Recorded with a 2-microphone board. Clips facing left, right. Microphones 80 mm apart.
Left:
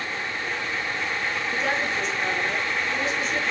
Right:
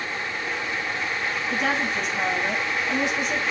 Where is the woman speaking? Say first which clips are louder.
Right 2 dB; 75° right (ahead or behind), 6 m; by 3.4 s 85° right, 5.5 m.